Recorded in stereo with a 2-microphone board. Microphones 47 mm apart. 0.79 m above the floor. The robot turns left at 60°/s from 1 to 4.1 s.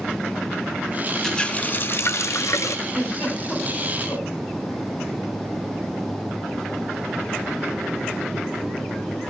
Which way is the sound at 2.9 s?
35° right (ahead or behind).